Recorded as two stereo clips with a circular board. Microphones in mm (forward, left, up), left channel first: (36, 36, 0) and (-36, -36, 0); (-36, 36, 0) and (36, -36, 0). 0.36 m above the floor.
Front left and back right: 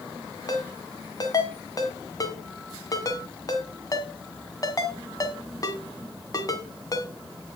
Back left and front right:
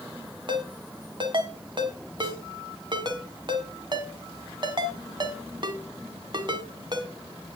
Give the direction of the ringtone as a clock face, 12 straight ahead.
12 o'clock.